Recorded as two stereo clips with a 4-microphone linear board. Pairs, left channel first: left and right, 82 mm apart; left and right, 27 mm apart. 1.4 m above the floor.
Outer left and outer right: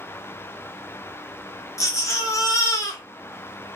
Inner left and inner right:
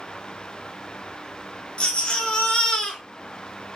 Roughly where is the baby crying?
Left.